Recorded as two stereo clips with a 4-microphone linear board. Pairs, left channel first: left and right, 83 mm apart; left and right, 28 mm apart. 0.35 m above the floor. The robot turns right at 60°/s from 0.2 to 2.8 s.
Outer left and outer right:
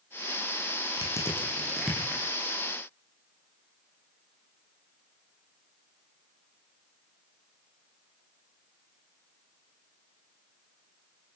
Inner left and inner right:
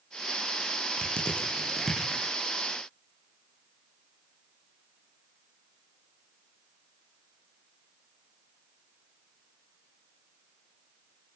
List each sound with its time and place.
1.0 s crushing: 50° left (ahead or behind), 8.5 m; by 2.3 s 35° right (ahead or behind), 8.5 m